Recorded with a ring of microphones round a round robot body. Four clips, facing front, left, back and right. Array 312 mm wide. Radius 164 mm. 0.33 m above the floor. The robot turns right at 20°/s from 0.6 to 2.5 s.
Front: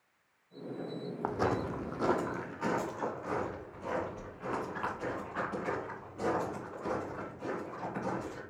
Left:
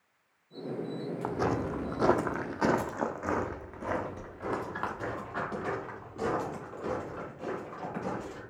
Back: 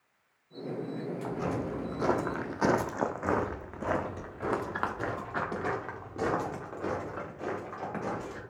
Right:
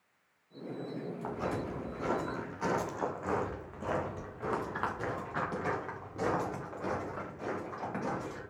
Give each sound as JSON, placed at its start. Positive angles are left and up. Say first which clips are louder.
{"t": 1.2, "sound": "footsteps", "louder": "left 6 dB, front 3 dB", "azimuth_deg": 40, "distance_m": 0.7}